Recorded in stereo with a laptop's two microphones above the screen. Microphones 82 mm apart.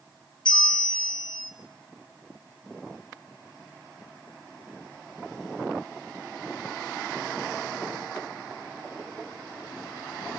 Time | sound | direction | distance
0.5 | a bell | 65° left (ahead or behind) | 1.3 m